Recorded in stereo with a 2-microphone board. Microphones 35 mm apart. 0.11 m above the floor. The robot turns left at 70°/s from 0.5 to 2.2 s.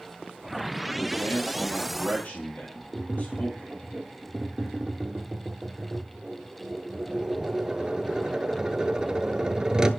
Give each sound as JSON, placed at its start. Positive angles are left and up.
{"t": 1.0, "sound": "a man speaking", "azimuth_deg": 150, "distance_m": 2.5}
{"t": 2.9, "sound": "tapping", "side_deg": -20, "distance_m": 0.5}